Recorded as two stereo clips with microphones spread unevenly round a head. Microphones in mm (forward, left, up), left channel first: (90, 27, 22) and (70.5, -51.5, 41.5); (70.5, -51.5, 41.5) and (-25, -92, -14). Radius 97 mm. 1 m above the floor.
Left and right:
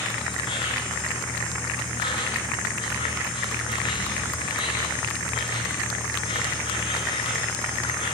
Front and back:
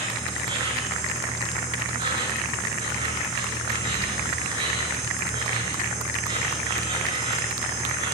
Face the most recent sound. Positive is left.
turn(degrees=130)